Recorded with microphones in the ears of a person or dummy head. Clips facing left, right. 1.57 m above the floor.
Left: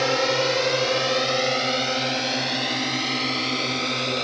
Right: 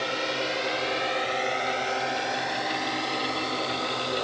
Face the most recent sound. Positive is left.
turn(degrees=40)  # may be behind; listen again after turning